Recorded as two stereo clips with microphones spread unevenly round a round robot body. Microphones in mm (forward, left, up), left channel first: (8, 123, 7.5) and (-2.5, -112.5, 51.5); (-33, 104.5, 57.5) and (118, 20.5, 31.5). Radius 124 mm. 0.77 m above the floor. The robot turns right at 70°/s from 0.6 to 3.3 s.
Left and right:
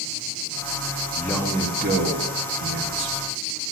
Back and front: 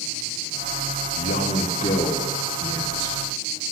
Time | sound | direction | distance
1.1 | a man speaking | 160° left | 1.8 m